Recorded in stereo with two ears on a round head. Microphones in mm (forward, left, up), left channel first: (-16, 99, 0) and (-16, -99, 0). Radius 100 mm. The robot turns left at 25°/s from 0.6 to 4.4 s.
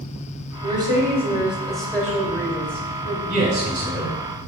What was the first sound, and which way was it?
A woman speaking, 155° right.